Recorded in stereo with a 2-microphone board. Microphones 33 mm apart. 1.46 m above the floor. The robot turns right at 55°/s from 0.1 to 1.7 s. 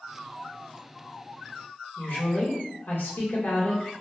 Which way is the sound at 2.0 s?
75° left (ahead or behind).